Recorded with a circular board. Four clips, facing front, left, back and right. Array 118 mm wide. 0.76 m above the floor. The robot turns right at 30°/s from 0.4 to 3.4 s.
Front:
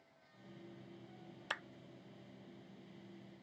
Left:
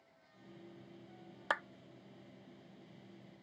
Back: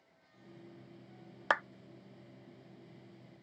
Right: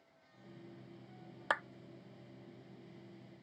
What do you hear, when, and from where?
1.5 s a clap: 170° right